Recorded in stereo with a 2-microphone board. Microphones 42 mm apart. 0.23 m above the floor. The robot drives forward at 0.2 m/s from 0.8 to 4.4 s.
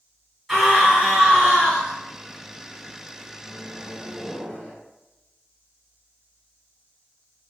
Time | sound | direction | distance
0.5 | a scream | 10° left (ahead or behind) | 1.5 m
3.4 | a microwave | 20° left (ahead or behind) | 1.6 m